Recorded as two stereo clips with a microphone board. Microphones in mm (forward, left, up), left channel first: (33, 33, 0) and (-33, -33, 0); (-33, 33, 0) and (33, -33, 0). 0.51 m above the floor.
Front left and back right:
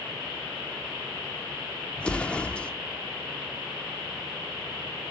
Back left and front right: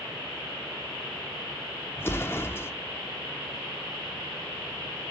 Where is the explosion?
110° left, 0.9 m.